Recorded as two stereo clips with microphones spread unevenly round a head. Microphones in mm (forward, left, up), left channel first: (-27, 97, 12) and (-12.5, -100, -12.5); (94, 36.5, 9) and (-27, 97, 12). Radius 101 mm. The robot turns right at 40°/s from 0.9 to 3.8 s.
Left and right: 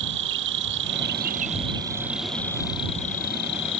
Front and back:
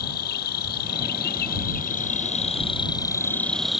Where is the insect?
50° right; by 3.8 s 65° left.